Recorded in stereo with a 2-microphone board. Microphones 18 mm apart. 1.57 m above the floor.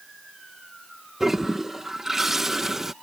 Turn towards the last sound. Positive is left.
turn(degrees=-20)  # may be behind; listen again after turning